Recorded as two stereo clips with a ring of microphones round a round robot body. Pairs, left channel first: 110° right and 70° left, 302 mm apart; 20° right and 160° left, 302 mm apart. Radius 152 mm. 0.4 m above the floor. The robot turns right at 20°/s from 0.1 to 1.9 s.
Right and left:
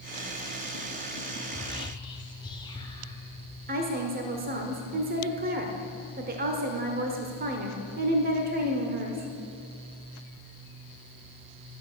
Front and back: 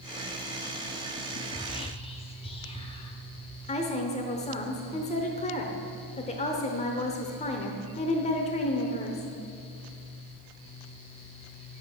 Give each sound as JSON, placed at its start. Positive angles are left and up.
{"t": 1.5, "sound": "whispering", "azimuth_deg": -70, "distance_m": 1.2}
{"t": 3.7, "sound": "a woman speaking", "azimuth_deg": 30, "distance_m": 0.9}